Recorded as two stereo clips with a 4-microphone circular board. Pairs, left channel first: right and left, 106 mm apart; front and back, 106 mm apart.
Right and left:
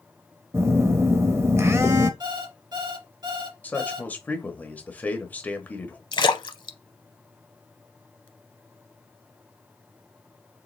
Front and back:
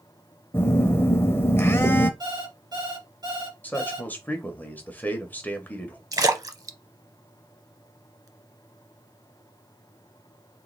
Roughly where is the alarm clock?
Behind left.